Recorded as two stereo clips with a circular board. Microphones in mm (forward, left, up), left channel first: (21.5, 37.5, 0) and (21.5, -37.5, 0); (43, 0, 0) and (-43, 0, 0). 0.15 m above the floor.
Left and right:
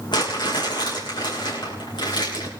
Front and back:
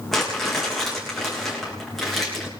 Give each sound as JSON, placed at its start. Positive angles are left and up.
{"t": 0.1, "sound": "crumpling", "azimuth_deg": 90, "distance_m": 7.5}